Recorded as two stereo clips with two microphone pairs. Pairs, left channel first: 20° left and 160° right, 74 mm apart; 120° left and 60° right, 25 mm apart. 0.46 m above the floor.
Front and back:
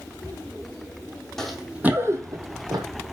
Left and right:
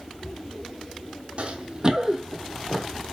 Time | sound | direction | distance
1.4 | running footsteps | 65° right | 0.8 m